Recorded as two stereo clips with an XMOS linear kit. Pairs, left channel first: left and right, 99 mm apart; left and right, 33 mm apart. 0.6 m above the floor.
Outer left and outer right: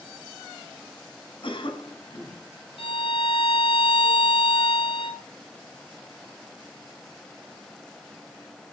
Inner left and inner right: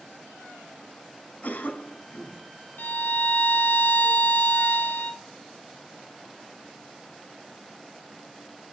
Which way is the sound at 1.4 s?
65° left (ahead or behind).